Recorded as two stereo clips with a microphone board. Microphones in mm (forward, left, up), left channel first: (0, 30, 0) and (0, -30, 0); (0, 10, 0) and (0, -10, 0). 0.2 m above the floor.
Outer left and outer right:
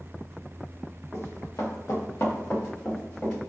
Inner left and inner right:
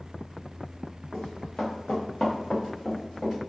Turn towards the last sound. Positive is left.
turn(degrees=15)  # may be behind; listen again after turning